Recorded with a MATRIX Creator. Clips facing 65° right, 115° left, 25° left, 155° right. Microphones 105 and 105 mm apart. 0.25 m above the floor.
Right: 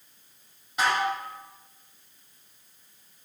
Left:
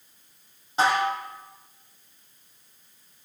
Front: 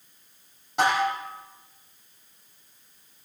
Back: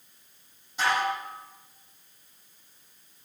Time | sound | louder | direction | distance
0.8 | dishes clattering | left 3 dB, front 3 dB | 50° left | 6.5 m